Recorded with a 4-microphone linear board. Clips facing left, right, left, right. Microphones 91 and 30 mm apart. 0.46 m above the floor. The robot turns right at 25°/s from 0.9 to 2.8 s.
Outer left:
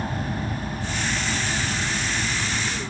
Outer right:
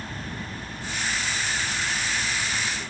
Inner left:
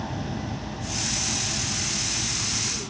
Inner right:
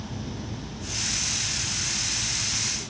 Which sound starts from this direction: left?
An aircraft, at 0.0 s.